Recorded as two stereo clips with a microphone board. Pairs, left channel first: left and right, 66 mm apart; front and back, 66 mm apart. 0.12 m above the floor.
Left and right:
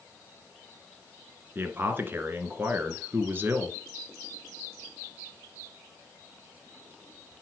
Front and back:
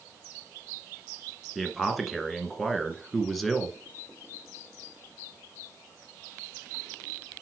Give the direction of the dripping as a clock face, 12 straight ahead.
I don't hear dripping.